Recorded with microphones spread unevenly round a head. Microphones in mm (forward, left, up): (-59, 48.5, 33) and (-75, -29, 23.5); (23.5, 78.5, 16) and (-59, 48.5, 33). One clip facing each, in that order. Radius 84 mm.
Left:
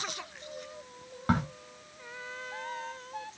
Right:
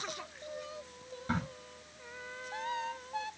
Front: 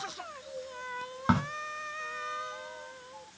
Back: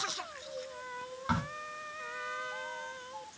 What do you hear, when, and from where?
1.3 s a crack: 35° left, 1.9 m